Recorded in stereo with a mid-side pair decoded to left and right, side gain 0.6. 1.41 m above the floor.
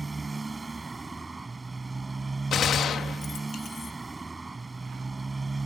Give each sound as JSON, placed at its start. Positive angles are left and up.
{"t": 0.0, "sound": "a motorcycle", "azimuth_deg": -20}
{"t": 2.5, "sound": "a gunshot", "azimuth_deg": 45}